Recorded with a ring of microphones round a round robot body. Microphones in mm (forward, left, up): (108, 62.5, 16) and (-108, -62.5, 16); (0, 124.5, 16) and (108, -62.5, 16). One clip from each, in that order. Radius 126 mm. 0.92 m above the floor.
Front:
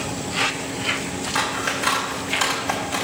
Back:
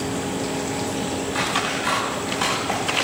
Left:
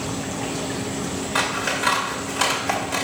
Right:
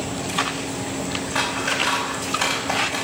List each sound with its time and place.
1.4 s scissors: 85° left, 2 m